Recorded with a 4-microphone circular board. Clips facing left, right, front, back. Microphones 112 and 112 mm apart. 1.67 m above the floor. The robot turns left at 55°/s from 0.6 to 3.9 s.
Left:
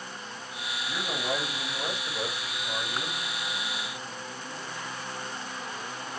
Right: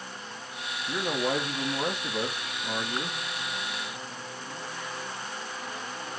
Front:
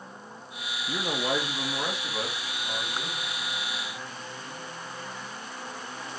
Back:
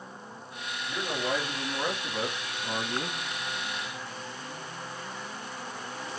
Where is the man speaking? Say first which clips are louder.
Right 4 dB, front 2 dB; 30° right, 2.5 m; by 3.2 s 155° right, 2.5 m.